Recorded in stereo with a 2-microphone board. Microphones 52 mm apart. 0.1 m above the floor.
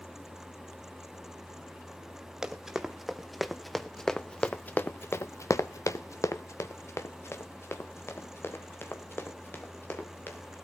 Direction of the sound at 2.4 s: 10° right (ahead or behind).